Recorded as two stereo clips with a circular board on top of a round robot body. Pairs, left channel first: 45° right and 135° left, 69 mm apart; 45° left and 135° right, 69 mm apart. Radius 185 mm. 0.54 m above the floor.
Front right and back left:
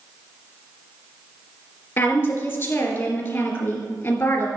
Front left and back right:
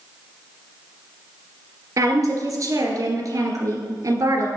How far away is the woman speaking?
About 2.5 m.